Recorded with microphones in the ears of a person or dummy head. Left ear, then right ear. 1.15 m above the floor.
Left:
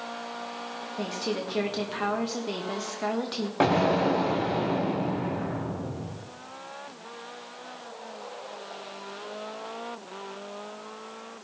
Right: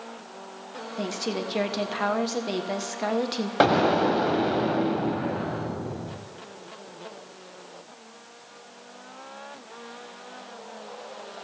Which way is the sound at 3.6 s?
35° right (ahead or behind).